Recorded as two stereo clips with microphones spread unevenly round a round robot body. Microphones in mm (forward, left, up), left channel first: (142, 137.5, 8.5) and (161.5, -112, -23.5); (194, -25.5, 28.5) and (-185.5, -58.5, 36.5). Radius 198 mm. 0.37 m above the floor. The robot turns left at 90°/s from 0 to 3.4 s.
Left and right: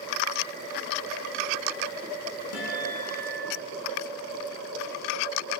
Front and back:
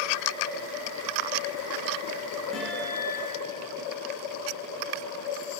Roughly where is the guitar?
Left.